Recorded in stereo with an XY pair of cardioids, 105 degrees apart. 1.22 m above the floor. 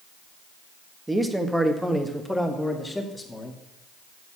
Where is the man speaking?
15° right, 1.6 m; by 3.6 s 20° left, 2.5 m.